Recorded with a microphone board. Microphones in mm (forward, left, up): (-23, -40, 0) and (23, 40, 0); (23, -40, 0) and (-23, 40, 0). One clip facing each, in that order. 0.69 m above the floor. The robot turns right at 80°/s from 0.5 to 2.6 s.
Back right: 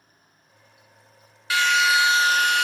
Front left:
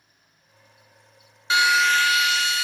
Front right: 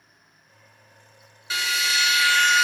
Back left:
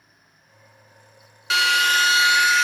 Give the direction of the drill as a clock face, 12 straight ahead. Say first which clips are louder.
Front left 1 dB, back left 7 dB; 8 o'clock.